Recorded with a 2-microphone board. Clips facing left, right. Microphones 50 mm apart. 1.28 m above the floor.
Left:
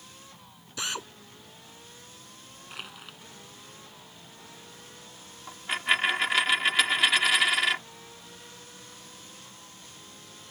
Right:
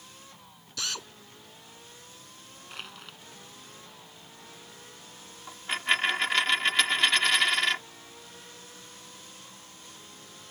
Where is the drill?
20° left (ahead or behind).